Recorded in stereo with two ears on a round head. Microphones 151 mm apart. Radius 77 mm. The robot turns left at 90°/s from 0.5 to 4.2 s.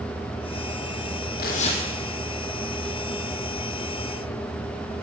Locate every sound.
1.4 s tearing paper: 60° left, 2.5 m; by 1.8 s 25° left, 2.5 m